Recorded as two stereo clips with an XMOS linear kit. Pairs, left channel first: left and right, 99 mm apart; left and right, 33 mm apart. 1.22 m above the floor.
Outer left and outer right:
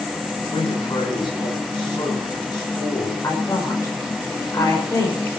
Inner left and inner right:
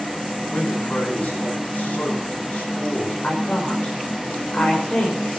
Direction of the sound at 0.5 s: 50° left (ahead or behind).